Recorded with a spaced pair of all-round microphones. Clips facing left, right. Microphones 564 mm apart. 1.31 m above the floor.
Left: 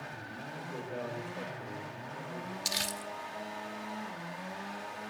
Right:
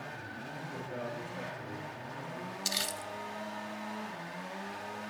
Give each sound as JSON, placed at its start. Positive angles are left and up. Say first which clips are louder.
{"t": 0.6, "sound": "a man speaking", "louder": "left 2 dB", "side_deg": -40, "distance_m": 3.5}
{"t": 2.6, "sound": "crumpling", "louder": "even", "side_deg": 15, "distance_m": 0.8}